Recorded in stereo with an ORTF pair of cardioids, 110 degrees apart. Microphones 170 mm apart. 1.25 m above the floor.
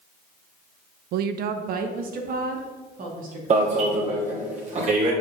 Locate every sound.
1.1 s a woman speaking: 70° right, 0.6 m; by 3.9 s 55° right, 3 m
3.5 s an alarm: 40° right, 2.5 m